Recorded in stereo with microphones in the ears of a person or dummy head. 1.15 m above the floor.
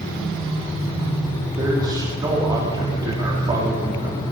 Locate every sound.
1.6 s a man speaking: 20° right (ahead or behind), 3 m